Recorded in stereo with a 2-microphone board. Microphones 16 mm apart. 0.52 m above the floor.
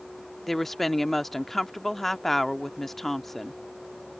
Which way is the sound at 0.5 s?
10° left (ahead or behind).